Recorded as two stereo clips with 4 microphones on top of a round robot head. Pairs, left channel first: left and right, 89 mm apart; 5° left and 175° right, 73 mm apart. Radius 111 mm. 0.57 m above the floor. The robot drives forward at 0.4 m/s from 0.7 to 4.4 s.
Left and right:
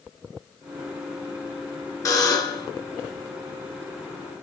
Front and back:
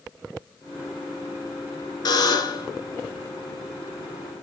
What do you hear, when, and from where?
2.0 s a buzzer: 35° left, 2 m; by 2.7 s 40° left, 2.0 m